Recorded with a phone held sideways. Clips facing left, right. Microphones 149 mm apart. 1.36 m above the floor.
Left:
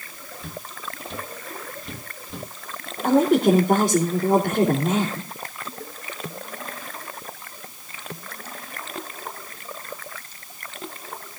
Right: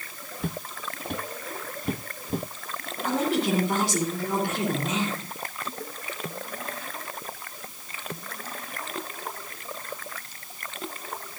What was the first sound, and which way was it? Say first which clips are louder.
Footsteps: right 4 dB; 60° right (ahead or behind).